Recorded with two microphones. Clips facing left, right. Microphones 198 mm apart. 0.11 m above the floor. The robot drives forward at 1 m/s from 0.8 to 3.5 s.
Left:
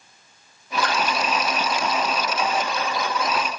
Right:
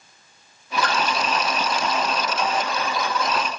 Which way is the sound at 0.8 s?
5° left (ahead or behind).